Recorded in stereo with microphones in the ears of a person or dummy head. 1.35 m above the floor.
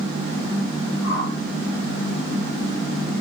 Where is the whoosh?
75° left (ahead or behind), 4.5 m.